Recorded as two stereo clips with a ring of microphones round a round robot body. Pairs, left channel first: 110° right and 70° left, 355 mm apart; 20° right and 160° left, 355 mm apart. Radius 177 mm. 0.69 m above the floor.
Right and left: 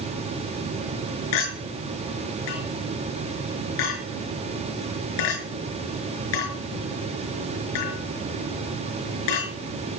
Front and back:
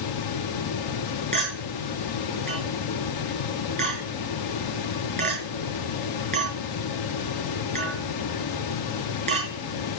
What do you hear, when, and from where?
1.3 s a clink: 130° right, 7 m